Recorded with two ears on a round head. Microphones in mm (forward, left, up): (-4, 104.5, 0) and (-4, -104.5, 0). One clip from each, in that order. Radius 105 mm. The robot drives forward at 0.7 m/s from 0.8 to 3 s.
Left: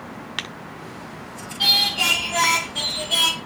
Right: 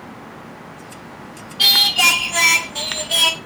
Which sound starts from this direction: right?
Singing, at 1.6 s.